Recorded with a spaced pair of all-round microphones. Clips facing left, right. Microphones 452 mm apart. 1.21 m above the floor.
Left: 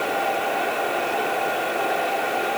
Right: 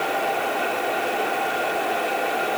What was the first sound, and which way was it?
Only background noise.